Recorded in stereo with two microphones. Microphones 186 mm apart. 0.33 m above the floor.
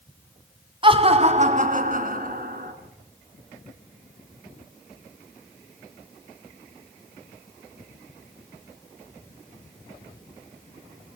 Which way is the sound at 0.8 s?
25° right (ahead or behind).